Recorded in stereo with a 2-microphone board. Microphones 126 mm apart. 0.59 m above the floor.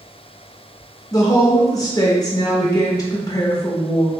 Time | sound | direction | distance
1.1 | a woman speaking | 30° left (ahead or behind) | 0.7 m